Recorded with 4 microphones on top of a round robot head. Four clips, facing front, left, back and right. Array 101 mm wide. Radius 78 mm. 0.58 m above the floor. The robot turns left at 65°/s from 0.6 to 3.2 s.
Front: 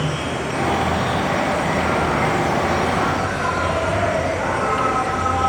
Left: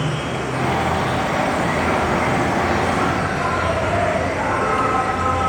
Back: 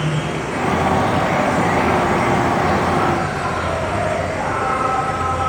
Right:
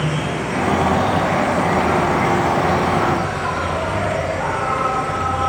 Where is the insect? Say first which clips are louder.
Right 1 dB, back 1 dB; 115° right, 5 m; by 5.5 s 75° left, 5 m.